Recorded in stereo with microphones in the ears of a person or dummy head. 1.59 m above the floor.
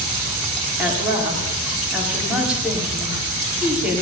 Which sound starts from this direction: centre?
A woman speaking, at 0.8 s.